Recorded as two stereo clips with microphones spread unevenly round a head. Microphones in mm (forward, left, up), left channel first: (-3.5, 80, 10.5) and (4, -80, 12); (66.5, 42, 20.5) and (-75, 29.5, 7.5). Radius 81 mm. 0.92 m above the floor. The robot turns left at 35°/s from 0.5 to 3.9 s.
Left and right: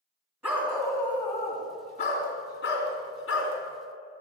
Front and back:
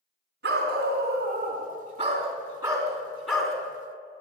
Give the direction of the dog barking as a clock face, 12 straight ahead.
6 o'clock.